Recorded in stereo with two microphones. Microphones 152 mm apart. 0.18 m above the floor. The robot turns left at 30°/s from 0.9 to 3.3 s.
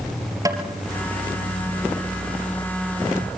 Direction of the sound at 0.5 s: 25° right (ahead or behind).